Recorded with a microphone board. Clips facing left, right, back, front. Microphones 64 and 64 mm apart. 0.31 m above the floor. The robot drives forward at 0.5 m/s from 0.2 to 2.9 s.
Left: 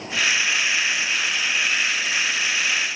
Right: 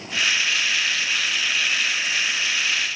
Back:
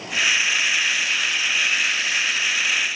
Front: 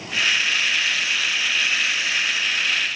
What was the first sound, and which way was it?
Only background noise.